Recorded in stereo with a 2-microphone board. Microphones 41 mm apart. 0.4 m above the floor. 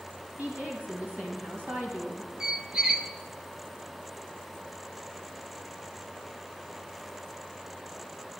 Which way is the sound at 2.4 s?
20° right (ahead or behind).